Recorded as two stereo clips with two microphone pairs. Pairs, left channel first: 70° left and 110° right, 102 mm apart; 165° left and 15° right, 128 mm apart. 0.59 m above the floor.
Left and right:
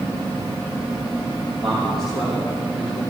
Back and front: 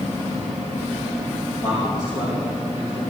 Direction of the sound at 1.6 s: 155° left.